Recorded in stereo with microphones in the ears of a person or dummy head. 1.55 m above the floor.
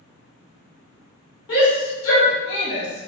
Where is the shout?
70° left (ahead or behind), 1.1 m; by 3.1 s 50° left (ahead or behind), 0.8 m.